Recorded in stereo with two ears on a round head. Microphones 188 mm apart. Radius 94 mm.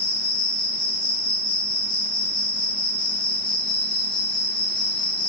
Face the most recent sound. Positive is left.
turn(degrees=25)  # may be behind; listen again after turning